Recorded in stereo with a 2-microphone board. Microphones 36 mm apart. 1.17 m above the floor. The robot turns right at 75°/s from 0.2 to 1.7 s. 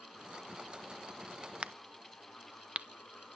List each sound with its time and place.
1.6 s a crack: 40° right (ahead or behind), 0.7 m; by 2.9 s 35° right (ahead or behind), 0.7 m